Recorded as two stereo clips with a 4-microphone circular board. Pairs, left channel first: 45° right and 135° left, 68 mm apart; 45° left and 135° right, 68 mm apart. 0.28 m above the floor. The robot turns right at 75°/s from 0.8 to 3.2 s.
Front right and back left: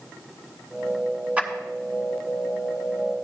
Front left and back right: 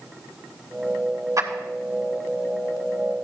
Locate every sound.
1.4 s a clap: 160° right, 2.5 m; by 1.5 s 145° right, 2.5 m